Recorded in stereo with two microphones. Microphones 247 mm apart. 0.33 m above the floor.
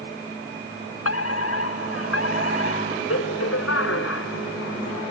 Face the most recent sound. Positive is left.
turn(degrees=65)  # may be behind; listen again after turning